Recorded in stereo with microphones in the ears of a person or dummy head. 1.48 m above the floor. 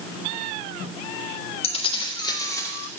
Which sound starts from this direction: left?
Keys jangling, at 1.6 s.